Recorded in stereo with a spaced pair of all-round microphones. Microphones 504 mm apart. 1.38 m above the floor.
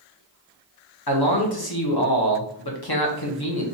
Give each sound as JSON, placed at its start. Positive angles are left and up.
{"t": 1.1, "sound": "a man speaking", "side_deg": 45, "distance_m": 1.0}